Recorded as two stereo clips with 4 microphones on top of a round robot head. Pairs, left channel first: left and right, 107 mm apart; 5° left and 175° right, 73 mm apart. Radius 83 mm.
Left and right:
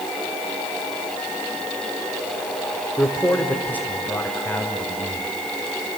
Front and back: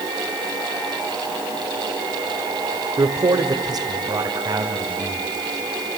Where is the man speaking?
170° left, 1.6 m; by 5.3 s 160° left, 4.5 m.